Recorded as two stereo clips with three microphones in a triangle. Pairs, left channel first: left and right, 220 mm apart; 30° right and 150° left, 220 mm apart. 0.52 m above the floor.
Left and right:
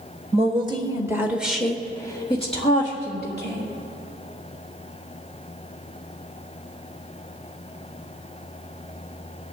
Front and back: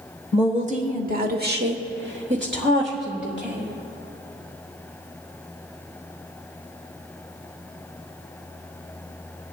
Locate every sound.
0.3 s a woman speaking: 150° right, 1.6 m; by 3.7 s 120° left, 1.7 m